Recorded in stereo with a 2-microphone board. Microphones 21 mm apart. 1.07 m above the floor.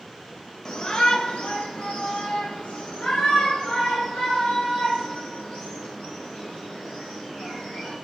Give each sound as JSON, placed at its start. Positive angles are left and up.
{"t": 0.7, "sound": "a shout", "side_deg": 30, "distance_m": 0.8}